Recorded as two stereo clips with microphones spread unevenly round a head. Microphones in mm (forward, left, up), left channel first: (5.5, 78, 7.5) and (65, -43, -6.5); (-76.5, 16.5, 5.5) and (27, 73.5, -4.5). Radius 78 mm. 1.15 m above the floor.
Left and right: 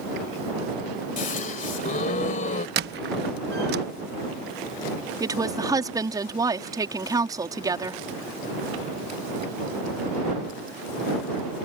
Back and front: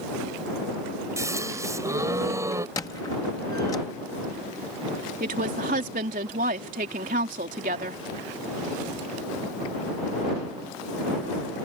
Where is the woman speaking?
Straight ahead.